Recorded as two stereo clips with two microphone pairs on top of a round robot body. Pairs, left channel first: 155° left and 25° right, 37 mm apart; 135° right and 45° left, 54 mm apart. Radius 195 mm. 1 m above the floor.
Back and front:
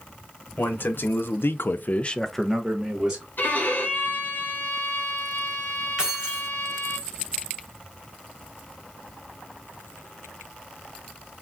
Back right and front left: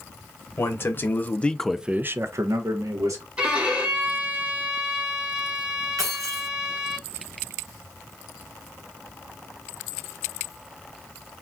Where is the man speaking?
175° right, 1.0 m; by 3.3 s 45° left, 1.0 m.